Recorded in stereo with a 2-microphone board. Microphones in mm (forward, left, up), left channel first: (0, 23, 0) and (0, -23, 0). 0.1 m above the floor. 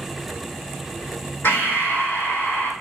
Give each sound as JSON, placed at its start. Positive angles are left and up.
{"t": 1.4, "sound": "breathing", "side_deg": 65, "distance_m": 3.0}